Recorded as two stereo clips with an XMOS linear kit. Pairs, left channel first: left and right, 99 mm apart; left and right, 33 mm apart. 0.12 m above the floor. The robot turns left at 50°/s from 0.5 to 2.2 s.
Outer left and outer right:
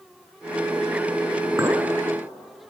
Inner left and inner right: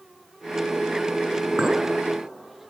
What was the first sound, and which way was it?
A clink, 25° right (ahead or behind).